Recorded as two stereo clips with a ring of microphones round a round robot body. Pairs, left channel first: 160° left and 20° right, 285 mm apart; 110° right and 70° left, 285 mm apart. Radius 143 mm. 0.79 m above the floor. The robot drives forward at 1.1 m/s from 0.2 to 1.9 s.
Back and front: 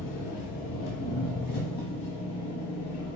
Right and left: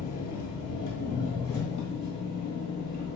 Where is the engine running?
175° right, 0.9 m; by 3.2 s straight behind, 3 m.